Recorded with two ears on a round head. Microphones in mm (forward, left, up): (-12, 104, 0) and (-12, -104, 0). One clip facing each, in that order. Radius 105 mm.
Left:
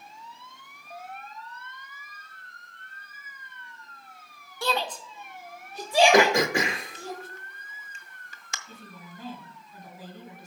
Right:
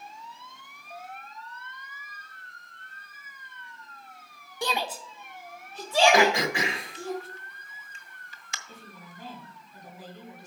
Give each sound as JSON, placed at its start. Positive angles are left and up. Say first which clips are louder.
{"t": 4.6, "sound": "a shout", "louder": "left 2 dB", "side_deg": -15, "distance_m": 0.7}
{"t": 6.1, "sound": "throat clearing", "louder": "left 2 dB", "side_deg": 40, "distance_m": 0.7}
{"t": 8.7, "sound": "a woman speaking", "louder": "left 2 dB", "side_deg": 75, "distance_m": 4.5}